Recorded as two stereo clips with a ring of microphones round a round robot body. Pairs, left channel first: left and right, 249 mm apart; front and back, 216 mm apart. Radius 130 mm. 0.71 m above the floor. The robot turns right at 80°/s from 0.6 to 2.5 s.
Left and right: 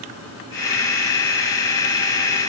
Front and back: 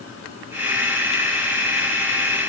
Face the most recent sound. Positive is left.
No sound to turn to.